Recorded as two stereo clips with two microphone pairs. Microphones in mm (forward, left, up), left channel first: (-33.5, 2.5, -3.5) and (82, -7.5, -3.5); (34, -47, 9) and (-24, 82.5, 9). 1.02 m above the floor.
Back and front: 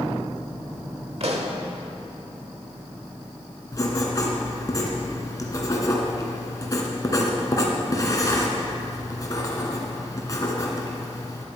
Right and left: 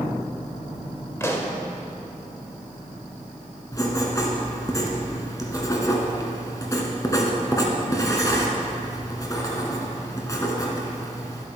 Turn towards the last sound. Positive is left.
turn(degrees=-130)